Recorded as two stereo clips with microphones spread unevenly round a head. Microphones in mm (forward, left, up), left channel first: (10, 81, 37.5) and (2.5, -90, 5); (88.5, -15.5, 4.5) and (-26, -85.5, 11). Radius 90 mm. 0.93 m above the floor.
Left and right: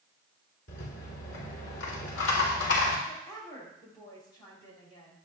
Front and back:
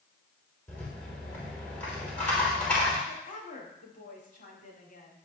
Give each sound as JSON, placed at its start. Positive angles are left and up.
{"t": 0.7, "sound": "a rattle", "azimuth_deg": 115, "distance_m": 3.5}
{"t": 3.1, "sound": "a woman speaking", "azimuth_deg": 15, "distance_m": 6.0}